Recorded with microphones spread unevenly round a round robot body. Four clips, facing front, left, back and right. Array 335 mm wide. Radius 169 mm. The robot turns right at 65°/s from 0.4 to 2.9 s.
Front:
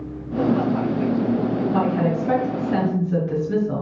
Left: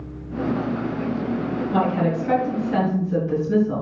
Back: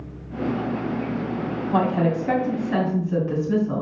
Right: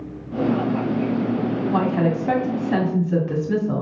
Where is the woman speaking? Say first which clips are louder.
Left 1 dB, back 4 dB; 165° right, 3 m; by 3.8 s 90° right, 3 m.